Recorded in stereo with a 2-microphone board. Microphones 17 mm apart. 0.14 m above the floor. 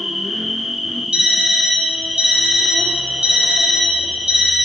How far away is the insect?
About 1.6 m.